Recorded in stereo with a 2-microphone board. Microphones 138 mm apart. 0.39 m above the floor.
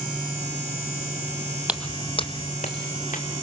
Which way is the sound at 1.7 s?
10° right (ahead or behind).